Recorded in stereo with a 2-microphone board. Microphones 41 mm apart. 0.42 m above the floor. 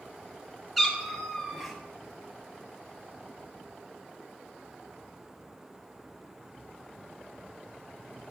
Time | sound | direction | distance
0.8 | a cat meowing | centre (ahead or behind) | 1.1 m